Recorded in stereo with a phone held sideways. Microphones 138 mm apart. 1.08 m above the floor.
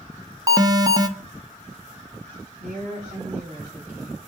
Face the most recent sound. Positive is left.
turn(degrees=-85)